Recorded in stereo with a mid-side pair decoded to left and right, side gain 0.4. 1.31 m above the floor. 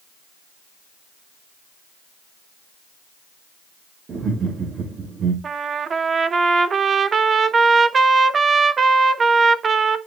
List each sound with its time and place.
4.1 s laughter: 55° right, 2.5 m
5.4 s a trumpet: 50° right, 0.9 m